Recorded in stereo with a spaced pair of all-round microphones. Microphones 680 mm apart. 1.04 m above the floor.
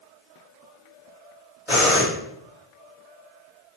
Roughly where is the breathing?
Centre.